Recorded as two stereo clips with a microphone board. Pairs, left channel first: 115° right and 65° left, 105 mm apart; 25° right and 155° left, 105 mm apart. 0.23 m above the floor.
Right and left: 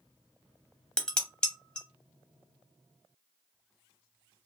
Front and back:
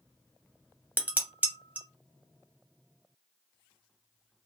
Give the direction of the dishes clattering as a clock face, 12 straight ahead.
6 o'clock.